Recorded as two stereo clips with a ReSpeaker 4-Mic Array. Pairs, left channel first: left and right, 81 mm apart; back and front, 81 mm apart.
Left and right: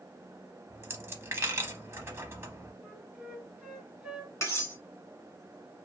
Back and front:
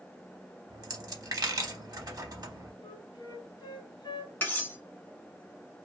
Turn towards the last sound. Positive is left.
turn(degrees=125)